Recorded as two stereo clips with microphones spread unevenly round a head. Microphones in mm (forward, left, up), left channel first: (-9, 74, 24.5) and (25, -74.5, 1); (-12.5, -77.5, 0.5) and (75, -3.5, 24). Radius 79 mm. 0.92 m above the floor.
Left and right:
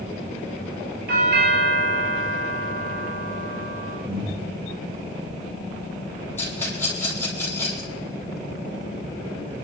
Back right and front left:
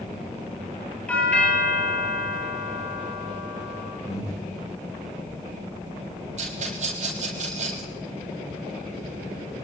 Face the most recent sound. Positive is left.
turn(degrees=30)